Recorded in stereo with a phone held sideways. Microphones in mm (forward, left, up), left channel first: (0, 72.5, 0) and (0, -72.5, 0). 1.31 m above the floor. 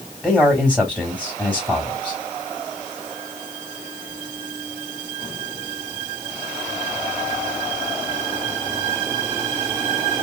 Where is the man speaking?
5° left (ahead or behind), 2.5 m.